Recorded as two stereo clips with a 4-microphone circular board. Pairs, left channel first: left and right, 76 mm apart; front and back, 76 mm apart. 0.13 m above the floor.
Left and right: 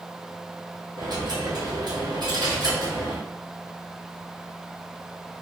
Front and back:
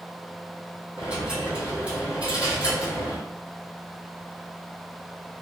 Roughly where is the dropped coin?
Right.